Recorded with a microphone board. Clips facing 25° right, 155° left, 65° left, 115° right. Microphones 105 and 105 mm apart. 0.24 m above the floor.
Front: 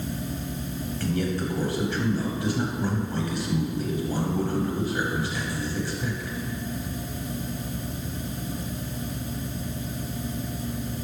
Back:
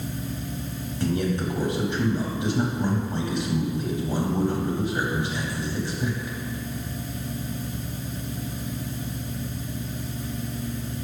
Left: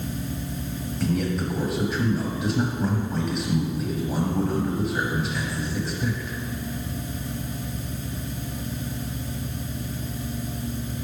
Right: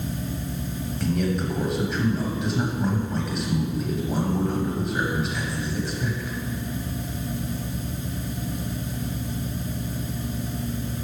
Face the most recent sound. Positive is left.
turn(degrees=155)